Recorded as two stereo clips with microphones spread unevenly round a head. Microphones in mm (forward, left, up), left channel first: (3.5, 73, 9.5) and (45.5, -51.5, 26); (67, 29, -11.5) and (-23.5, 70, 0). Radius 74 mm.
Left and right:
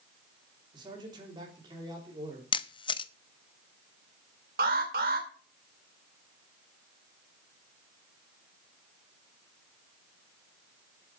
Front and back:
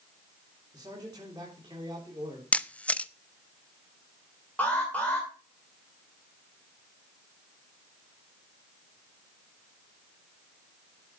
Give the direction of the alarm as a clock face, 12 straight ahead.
4 o'clock.